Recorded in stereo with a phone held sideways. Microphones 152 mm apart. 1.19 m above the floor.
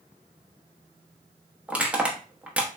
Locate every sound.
1.7 s crushing: 10° right (ahead or behind), 0.7 m